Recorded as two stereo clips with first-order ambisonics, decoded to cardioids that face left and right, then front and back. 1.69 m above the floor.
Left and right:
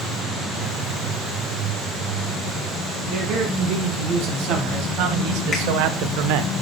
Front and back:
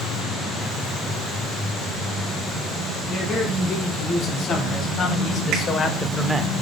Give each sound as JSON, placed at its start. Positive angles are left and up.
{"t": 3.1, "sound": "a man speaking", "azimuth_deg": -50, "distance_m": 3.0}
{"t": 5.5, "sound": "a finger snap", "azimuth_deg": 150, "distance_m": 2.0}